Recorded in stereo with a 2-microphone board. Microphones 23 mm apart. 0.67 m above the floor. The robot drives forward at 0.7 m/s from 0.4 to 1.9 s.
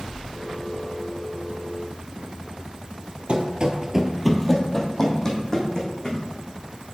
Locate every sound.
3.3 s running footsteps: 50° right (ahead or behind), 1.0 m; by 6.2 s 25° left (ahead or behind), 3 m